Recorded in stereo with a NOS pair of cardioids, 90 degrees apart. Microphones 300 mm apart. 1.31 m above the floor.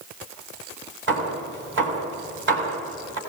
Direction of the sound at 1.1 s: 40° right.